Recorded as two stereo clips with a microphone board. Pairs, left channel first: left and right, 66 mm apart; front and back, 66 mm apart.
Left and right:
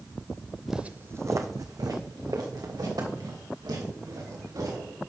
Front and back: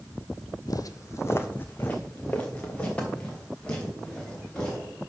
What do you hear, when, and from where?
0.7 s footsteps: straight ahead, 0.5 m; by 5.0 s 75° right, 4.5 m